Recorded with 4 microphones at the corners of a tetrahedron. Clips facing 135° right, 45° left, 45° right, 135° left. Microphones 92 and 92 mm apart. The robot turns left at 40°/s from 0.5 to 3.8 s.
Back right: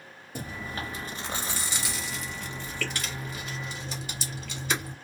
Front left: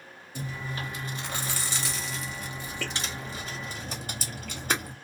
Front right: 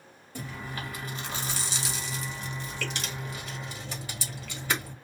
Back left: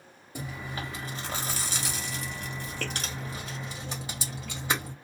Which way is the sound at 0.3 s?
160° right.